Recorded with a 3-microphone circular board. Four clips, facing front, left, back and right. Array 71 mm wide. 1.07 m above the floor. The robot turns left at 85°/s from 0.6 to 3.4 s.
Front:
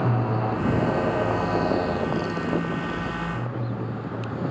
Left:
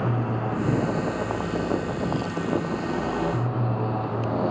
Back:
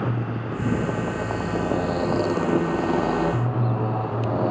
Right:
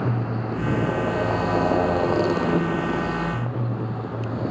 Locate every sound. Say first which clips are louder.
0.0 s a motorcycle: even, front 3 dB; 15° left; by 4.5 s 150° left